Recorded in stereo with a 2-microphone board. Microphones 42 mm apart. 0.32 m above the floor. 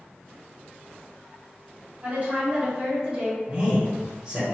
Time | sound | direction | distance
2.0 | a woman speaking | 40° right (ahead or behind) | 1.8 m
3.5 | a man speaking | 20° right (ahead or behind) | 0.9 m